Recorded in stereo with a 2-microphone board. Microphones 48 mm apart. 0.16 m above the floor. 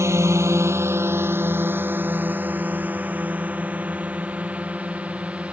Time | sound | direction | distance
0.0 | a drone | 75° right (ahead or behind) | ?